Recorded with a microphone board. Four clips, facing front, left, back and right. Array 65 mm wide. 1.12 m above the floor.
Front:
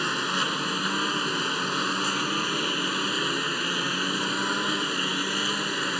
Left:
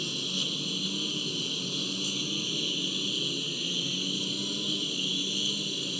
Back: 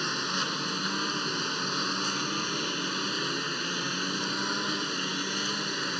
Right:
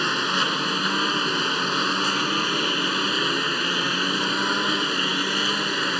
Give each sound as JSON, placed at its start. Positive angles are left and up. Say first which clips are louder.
{"t": 0.0, "sound": "a lawn mower", "louder": "right 13 dB, front 5 dB", "azimuth_deg": -70}